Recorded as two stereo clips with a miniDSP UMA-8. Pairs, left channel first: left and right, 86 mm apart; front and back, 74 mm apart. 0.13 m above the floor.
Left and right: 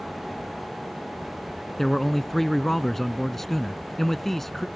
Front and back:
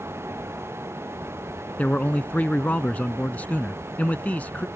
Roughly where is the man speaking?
Ahead.